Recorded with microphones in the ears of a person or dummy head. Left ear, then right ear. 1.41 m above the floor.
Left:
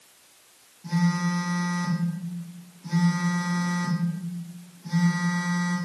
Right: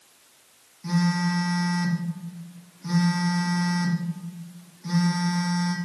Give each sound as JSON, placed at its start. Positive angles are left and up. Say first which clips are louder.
{"t": 0.8, "sound": "a phone buzzing", "louder": "right 1 dB", "side_deg": -60, "distance_m": 0.6}